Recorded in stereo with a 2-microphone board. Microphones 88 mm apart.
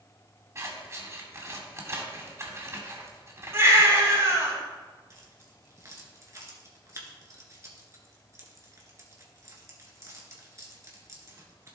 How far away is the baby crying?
About 4.5 m.